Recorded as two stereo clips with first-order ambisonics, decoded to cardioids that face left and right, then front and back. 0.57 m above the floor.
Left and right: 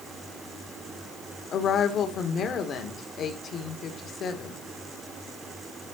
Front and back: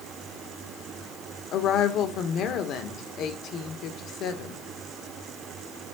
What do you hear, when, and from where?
1.5 s a woman speaking: 35° left, 1.8 m